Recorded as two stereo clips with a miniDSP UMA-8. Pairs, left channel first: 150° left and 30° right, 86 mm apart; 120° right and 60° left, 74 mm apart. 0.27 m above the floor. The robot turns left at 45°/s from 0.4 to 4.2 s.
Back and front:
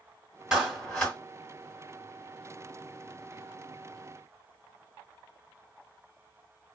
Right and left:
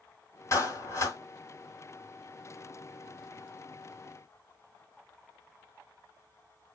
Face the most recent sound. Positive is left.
turn(degrees=80)